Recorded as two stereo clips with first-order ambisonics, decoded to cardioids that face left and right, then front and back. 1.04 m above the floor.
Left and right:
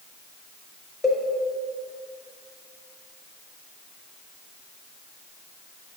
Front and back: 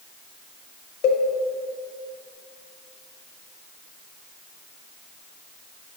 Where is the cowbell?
10° left, 1.2 m.